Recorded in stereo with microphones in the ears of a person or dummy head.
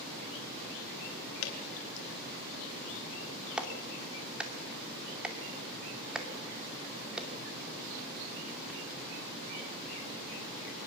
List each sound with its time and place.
1.4 s dripping: 85° left, 4 m
3.6 s a clap: centre (ahead or behind), 2.5 m